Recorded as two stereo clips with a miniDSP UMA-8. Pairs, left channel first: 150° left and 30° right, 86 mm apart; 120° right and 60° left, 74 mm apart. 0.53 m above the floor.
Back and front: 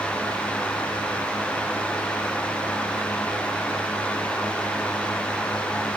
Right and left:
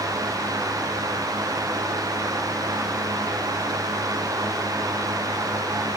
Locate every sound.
Only background noise.